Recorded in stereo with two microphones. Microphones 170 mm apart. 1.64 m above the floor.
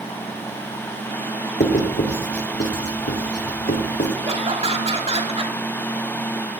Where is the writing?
85° left, 3.5 m.